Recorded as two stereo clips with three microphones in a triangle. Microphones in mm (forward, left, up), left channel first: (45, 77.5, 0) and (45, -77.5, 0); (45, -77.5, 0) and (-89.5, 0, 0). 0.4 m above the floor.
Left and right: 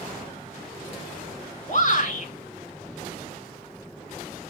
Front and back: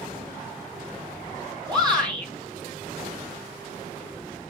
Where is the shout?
95° left, 3 m.